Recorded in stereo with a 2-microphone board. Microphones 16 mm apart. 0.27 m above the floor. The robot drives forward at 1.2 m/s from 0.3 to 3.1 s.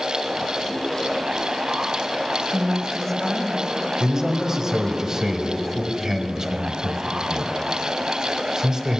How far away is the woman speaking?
About 1.1 m.